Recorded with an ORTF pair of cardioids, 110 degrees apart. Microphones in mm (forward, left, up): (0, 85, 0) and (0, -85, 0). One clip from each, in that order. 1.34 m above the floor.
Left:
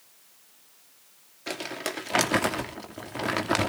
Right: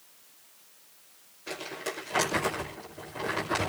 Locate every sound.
1.5 s crumpling: 60° left, 2.5 m